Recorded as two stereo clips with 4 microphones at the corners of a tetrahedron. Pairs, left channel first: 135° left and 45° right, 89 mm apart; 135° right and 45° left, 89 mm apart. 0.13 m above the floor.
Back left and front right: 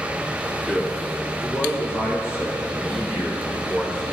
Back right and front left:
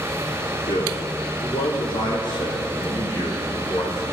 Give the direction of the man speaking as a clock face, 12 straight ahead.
5 o'clock.